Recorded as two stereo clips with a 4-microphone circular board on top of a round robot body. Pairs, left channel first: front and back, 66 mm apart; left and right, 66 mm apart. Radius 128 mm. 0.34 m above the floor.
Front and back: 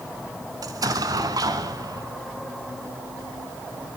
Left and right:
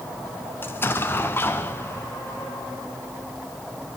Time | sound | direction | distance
0.6 | an explosion | 150° left | 1.1 m